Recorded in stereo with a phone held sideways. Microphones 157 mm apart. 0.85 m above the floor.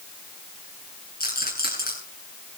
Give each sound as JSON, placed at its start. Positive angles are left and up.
{"t": 1.2, "sound": "a rattle", "side_deg": 75, "distance_m": 9.0}